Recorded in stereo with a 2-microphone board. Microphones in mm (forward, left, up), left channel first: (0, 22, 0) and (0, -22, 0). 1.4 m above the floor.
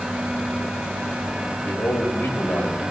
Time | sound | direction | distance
1.6 | a man speaking | 65° left (ahead or behind) | 5 m